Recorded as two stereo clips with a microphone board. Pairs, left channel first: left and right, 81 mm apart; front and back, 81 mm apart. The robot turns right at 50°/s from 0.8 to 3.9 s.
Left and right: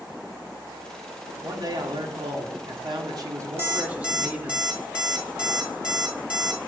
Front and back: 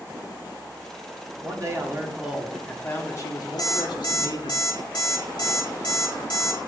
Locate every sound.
1.4 s a man speaking: 140° right, 1.5 m; by 4.6 s 15° right, 1.5 m
3.6 s an alarm clock: 30° right, 1.6 m; by 6.6 s 15° right, 1.6 m